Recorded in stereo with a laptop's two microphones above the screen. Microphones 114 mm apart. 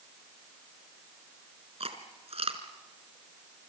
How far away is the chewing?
About 2.5 m.